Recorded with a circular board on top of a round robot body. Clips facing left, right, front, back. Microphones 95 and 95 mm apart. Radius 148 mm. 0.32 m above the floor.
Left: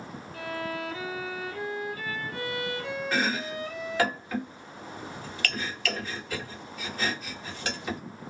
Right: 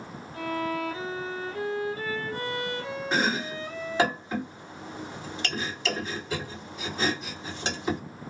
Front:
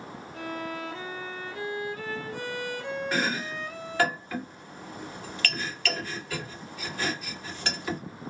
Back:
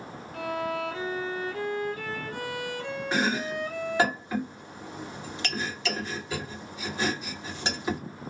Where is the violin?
150° right, 0.7 m.